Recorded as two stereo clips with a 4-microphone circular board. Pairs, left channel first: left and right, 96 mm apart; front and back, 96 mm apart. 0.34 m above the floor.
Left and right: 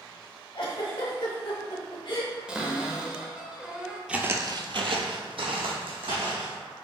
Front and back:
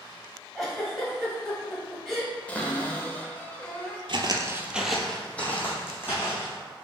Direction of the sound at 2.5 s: 30° right.